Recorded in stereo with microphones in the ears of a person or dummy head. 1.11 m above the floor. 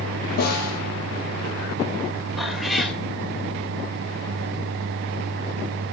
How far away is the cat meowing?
About 2.5 m.